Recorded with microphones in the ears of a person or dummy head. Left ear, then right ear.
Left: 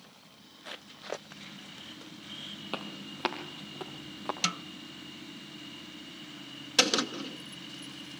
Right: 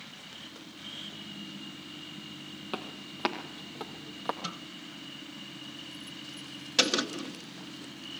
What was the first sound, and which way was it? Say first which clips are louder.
Footsteps: right 2 dB; 10° left (ahead or behind).